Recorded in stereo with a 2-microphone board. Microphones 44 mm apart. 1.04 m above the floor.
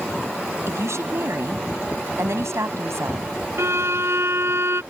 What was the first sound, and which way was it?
A woman speaking, 85° right.